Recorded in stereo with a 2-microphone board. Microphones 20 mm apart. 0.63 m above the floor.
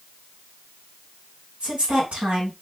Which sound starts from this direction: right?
A woman speaking, at 1.6 s.